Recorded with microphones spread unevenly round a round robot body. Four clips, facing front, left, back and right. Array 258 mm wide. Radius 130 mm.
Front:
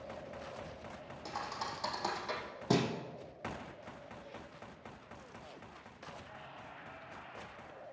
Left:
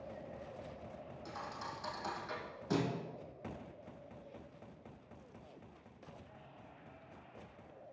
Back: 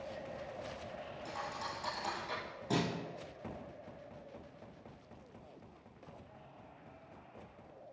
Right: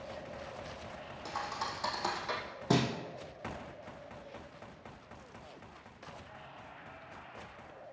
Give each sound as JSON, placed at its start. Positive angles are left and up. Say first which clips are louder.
{"t": 1.2, "sound": "a thud", "louder": "right 8 dB, front 2 dB", "azimuth_deg": -60, "distance_m": 2.5}